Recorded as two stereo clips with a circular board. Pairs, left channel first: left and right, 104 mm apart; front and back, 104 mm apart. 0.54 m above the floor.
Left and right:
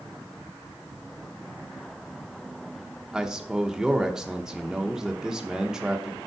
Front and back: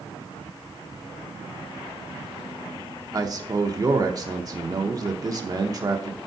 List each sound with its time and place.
3.1 s a man speaking: 170° right, 0.8 m